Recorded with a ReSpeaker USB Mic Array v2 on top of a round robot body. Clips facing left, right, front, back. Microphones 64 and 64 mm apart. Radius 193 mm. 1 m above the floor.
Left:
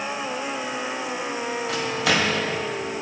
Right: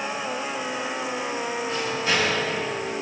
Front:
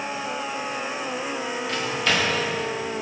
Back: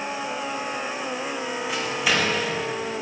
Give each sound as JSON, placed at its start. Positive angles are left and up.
{"t": 1.7, "sound": "a microwave", "azimuth_deg": 100, "distance_m": 1.5}